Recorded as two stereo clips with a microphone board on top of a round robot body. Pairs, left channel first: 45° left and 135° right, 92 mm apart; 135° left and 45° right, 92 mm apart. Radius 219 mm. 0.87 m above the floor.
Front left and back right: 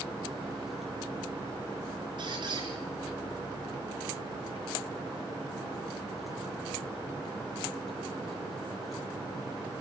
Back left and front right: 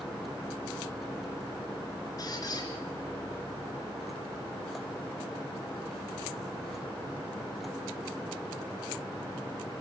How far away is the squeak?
About 3.5 m.